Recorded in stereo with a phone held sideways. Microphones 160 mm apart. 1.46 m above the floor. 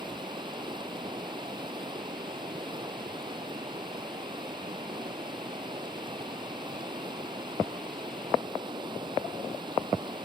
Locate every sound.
0.0 s running water: 30° right (ahead or behind)